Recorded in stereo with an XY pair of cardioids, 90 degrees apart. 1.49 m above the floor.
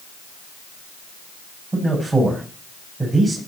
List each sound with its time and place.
1.7 s a man speaking: 25° right, 9 m